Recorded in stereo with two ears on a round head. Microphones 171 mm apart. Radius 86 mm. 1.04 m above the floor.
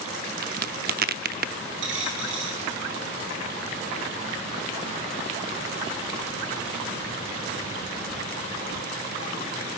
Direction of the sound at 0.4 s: 50° right (ahead or behind).